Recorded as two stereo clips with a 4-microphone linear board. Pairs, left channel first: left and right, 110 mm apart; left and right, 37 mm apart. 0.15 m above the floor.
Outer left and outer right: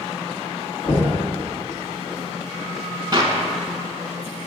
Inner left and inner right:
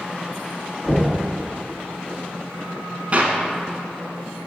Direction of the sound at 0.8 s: 45° left (ahead or behind).